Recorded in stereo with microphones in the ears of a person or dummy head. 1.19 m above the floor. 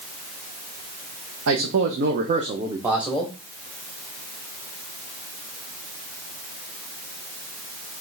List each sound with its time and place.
1.5 s a man speaking: 75° right (ahead or behind), 0.9 m; by 3.3 s 5° left (ahead or behind), 0.8 m